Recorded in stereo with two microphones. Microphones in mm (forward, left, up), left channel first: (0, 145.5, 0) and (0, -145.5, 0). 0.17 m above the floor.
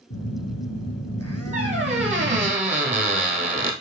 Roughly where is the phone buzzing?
Left.